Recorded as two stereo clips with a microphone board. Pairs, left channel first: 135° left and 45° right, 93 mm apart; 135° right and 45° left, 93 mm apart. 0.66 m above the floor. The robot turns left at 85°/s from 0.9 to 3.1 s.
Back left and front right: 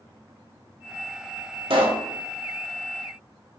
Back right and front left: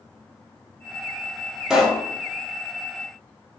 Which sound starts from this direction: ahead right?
A pop, at 1.7 s.